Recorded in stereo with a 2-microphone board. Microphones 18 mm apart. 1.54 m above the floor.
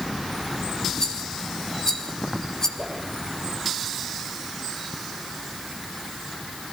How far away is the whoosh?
About 8 m.